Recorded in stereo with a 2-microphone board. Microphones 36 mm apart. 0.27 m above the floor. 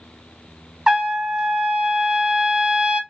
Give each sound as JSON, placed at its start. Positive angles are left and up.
{"t": 0.9, "sound": "a trumpet", "side_deg": -15, "distance_m": 0.5}